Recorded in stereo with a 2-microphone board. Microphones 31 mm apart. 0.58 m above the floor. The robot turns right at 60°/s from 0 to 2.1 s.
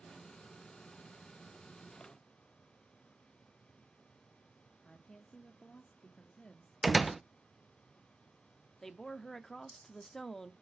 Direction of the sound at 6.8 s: Centre (ahead or behind).